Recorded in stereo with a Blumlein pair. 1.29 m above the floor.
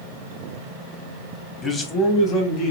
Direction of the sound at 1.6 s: 20° left.